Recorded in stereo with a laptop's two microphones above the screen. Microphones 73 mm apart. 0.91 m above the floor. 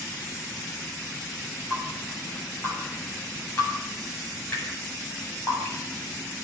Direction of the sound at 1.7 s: 25° left (ahead or behind).